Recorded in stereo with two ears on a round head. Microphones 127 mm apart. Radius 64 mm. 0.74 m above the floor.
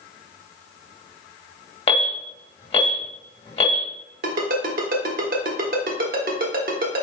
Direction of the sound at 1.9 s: 40° left (ahead or behind).